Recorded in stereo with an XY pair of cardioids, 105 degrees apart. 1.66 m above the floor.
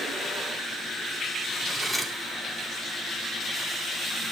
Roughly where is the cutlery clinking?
Ahead.